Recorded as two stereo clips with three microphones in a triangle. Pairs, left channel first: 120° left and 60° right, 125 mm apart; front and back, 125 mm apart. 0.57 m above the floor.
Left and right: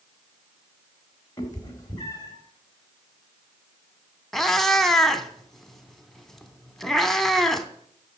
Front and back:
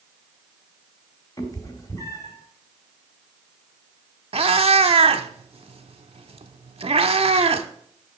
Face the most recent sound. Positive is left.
turn(degrees=-155)